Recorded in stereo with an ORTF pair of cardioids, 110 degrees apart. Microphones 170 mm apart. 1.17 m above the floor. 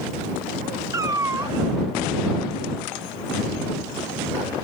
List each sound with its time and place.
0.9 s a cat meowing: 20° right